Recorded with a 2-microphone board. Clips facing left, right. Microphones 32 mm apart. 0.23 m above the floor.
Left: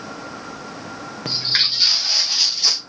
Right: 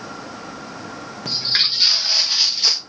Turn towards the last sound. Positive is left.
turn(degrees=-15)  # may be behind; listen again after turning